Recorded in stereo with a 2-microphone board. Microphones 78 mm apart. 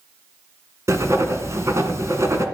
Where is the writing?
40° right (ahead or behind), 2 m.